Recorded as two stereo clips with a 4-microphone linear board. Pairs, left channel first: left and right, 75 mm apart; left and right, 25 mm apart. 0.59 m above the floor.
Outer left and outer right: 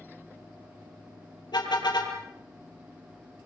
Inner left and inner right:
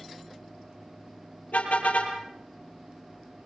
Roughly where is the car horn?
Left.